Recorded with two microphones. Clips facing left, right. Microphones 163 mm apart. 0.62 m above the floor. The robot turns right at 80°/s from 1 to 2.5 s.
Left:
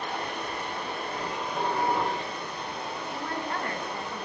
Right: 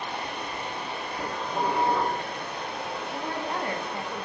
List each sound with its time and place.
0.0 s running water: 135° left, 0.8 m; by 4.3 s 105° right, 0.8 m
1.2 s dishes clattering: 140° right, 1.1 m; by 2.2 s 55° right, 1.1 m
3.1 s a woman speaking: 20° right (ahead or behind), 0.5 m